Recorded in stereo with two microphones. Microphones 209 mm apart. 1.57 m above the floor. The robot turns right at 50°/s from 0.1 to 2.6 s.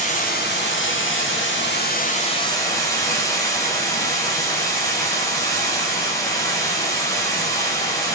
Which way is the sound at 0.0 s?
40° left.